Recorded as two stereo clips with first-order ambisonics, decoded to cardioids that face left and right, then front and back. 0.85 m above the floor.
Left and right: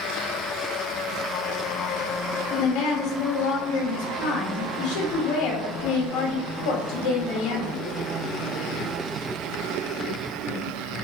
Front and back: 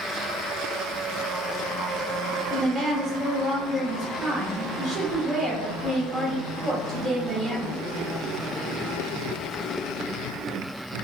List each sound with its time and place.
2.5 s a woman speaking: 85° left, 1.1 m